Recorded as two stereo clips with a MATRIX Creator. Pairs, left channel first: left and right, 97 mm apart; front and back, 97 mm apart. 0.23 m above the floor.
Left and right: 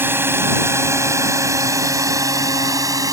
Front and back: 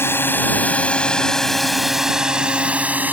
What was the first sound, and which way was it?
A drone, 45° right.